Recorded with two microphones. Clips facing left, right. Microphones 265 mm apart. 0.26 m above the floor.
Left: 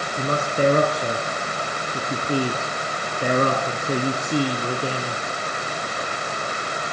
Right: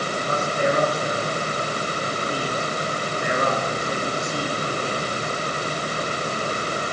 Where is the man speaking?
45° left (ahead or behind), 3 m.